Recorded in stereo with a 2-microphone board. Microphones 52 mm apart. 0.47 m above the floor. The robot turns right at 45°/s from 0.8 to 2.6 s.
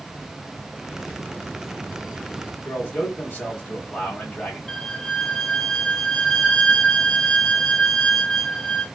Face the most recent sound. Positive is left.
turn(degrees=15)  # may be behind; listen again after turning